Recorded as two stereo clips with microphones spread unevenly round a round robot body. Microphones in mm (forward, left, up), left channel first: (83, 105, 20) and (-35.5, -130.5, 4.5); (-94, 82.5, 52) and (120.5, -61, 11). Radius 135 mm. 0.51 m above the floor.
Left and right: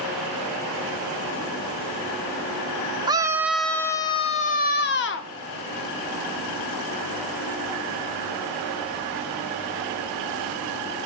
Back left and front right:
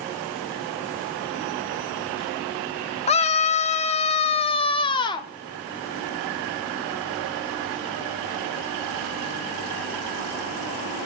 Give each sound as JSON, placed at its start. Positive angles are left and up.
{"t": 3.1, "sound": "a scream", "azimuth_deg": -160, "distance_m": 1.0}